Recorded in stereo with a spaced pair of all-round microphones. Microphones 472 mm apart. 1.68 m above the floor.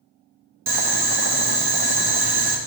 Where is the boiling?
50° right (ahead or behind), 0.7 m.